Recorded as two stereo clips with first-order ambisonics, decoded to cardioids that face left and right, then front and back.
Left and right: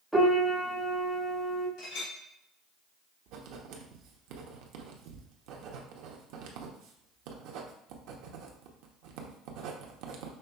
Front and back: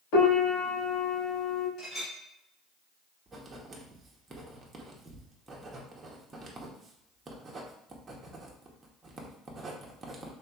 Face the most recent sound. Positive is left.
turn(degrees=-105)